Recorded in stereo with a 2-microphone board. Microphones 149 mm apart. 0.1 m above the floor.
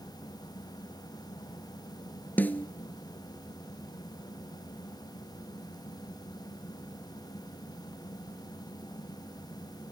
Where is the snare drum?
10° left (ahead or behind), 0.6 m.